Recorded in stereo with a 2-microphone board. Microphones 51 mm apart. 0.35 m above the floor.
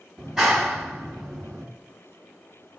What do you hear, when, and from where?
0.2 s a clap: 5° right (ahead or behind), 1.8 m